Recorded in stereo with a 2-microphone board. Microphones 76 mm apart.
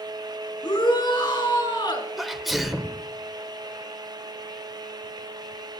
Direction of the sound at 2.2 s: Centre (ahead or behind).